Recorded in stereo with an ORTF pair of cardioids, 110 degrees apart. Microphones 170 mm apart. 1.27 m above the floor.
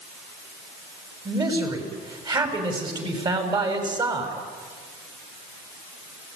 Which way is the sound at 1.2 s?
25° right.